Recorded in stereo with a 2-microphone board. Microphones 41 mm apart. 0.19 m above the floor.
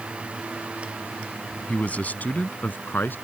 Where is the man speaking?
35° left (ahead or behind); by 3.1 s 55° left (ahead or behind).